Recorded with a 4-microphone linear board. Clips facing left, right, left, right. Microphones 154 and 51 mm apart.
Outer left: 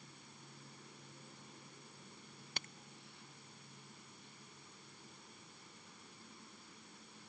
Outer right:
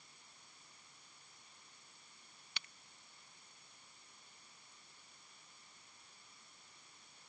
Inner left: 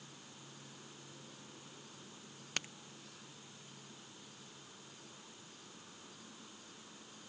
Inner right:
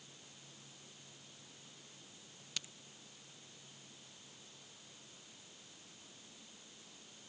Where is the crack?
45° left (ahead or behind).